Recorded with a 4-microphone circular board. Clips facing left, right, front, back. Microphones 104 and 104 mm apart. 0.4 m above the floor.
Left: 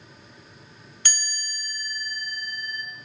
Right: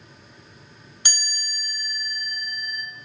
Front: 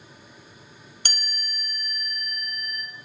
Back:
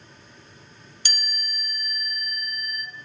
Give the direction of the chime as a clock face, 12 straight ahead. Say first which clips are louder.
Even, back 1 dB; 1 o'clock.